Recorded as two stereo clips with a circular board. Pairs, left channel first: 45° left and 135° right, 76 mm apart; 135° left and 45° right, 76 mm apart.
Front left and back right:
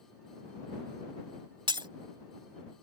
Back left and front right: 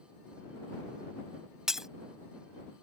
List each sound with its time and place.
1.7 s breaking glass: 130° right